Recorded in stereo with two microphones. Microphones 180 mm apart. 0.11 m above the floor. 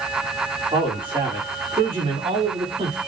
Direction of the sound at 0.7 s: 25° right (ahead or behind).